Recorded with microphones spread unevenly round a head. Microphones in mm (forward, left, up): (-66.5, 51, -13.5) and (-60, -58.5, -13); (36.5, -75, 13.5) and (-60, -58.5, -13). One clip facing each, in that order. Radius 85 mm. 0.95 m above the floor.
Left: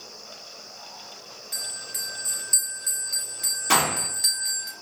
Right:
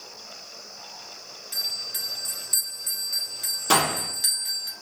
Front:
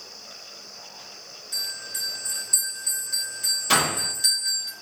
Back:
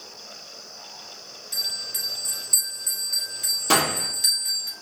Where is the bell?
170° right, 2.5 m.